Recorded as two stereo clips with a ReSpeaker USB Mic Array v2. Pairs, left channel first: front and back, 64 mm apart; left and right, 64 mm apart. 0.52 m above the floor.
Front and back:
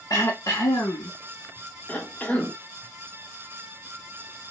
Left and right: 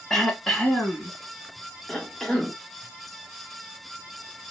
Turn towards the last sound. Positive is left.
turn(degrees=15)